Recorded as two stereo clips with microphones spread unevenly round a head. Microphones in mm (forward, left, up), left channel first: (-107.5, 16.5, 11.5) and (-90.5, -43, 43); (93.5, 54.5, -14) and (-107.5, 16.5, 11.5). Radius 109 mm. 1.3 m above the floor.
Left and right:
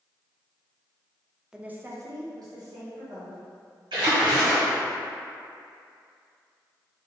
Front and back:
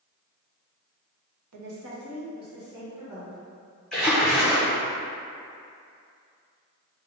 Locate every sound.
1.5 s a woman speaking: 165° right, 0.9 m; by 3.4 s 80° right, 2.5 m
3.9 s a splash: 75° right, 0.9 m